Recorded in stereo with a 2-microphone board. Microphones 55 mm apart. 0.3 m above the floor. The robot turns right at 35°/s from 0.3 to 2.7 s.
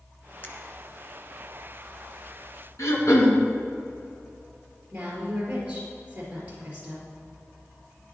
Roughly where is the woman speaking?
Right.